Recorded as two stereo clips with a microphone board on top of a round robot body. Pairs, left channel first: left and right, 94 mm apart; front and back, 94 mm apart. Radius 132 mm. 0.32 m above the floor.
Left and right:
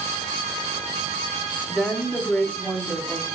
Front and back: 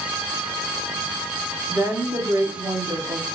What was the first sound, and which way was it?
A woman speaking, 160° right.